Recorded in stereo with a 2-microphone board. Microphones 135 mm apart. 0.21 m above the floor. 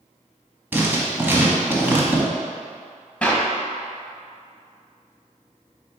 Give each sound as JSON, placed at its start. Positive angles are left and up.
{"t": 0.7, "sound": "writing", "side_deg": -15, "distance_m": 0.9}
{"t": 3.2, "sound": "a clap", "side_deg": 10, "distance_m": 0.8}